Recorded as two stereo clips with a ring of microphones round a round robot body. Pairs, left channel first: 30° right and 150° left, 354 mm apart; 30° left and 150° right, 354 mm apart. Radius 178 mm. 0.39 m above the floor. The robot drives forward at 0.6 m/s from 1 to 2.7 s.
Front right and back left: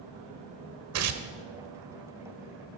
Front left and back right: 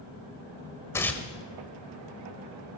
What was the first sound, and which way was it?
Tearing paper, 110° left.